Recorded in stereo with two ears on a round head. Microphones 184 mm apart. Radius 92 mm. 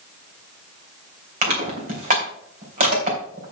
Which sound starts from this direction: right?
Crushing, at 1.4 s.